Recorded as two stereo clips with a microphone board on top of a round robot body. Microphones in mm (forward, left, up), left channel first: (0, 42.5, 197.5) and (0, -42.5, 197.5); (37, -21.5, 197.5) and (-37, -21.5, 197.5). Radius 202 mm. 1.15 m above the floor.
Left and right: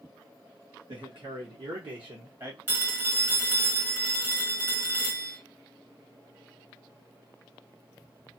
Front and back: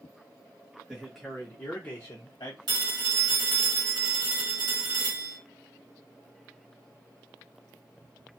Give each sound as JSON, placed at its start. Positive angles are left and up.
{"t": 0.9, "sound": "a man speaking", "azimuth_deg": -100, "distance_m": 1.2}
{"t": 2.7, "sound": "a phone ringing", "azimuth_deg": -160, "distance_m": 1.2}